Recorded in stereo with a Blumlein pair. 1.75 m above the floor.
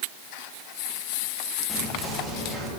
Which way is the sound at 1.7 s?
5° right.